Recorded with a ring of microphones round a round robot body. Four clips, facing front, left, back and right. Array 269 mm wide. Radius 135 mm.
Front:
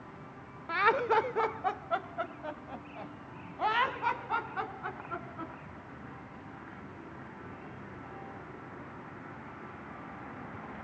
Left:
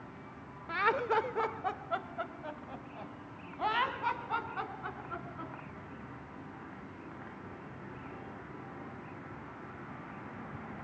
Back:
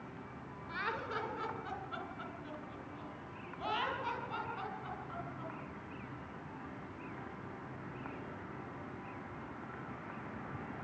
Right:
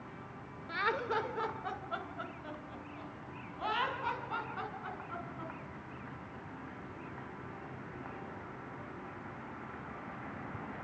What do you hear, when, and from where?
0.7 s laughter: 15° left, 1.9 m; by 5.5 s 25° left, 7.5 m